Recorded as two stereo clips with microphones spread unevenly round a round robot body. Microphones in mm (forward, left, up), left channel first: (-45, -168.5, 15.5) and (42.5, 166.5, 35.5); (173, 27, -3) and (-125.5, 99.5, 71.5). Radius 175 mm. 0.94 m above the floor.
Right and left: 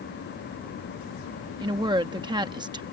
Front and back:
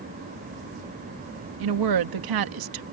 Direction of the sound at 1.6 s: 155° left.